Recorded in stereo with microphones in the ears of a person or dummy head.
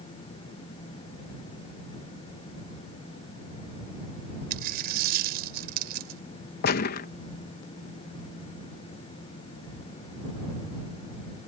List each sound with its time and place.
4.5 s a dropped coin: 60° right (ahead or behind)
6.6 s a gunshot: 60° left (ahead or behind)